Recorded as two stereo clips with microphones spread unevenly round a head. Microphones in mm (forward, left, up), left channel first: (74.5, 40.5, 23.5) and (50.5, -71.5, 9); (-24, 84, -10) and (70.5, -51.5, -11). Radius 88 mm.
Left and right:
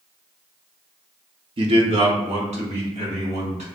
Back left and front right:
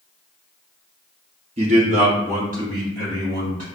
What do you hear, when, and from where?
1.6 s a man speaking: 105° right, 0.9 m; by 3.7 s 100° right, 2.5 m